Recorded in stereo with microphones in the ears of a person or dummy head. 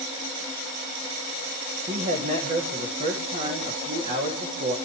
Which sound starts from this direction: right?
A man speaking, at 1.9 s.